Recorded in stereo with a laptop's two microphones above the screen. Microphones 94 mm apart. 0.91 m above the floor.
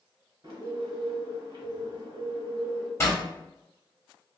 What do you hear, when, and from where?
0.4 s a bird: 65° right (ahead or behind), 1.3 m
3.0 s a zipper: 30° left (ahead or behind), 0.9 m